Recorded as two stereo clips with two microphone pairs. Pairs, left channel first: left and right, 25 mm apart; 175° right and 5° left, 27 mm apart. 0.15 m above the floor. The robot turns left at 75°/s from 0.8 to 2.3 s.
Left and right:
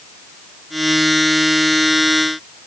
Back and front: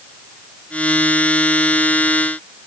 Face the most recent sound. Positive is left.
No sound to turn to.